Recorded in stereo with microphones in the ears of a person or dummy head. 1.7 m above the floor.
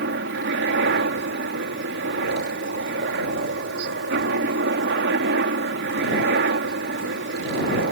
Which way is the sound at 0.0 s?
60° right (ahead or behind).